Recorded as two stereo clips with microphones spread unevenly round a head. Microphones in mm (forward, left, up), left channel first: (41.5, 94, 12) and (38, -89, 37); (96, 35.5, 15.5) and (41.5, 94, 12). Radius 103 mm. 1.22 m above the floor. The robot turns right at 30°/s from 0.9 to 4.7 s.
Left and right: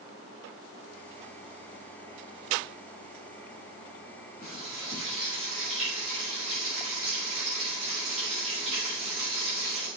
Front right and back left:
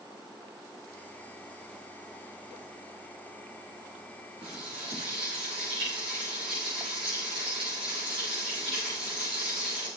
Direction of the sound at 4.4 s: 170° left.